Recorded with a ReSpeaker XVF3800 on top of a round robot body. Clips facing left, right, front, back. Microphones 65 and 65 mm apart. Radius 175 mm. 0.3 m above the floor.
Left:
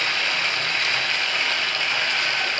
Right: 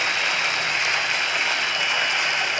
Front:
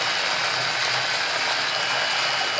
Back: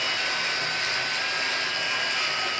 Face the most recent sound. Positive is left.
turn(degrees=-15)